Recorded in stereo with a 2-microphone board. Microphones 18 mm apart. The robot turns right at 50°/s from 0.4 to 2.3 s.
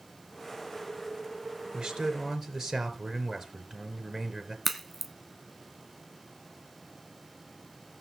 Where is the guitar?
I don't hear a guitar.